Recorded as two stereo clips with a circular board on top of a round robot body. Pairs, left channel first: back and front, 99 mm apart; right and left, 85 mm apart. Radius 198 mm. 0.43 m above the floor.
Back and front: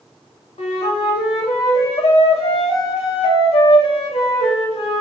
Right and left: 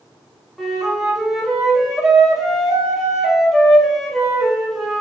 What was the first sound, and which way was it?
A flute, straight behind.